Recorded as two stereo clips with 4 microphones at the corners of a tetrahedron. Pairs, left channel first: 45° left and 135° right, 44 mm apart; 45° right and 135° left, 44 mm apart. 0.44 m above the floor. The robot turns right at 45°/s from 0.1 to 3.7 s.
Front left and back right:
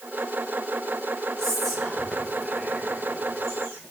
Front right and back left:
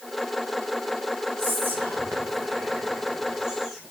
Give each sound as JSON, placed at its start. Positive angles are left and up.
{"t": 1.4, "sound": "whispering", "azimuth_deg": 120, "distance_m": 2.5}